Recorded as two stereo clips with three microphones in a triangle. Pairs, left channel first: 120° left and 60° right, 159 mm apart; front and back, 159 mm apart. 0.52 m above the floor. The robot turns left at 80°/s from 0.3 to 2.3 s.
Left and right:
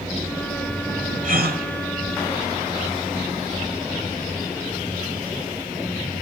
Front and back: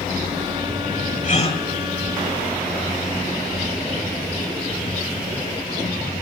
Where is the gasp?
30° right, 0.8 m; by 1.6 s 60° right, 0.8 m.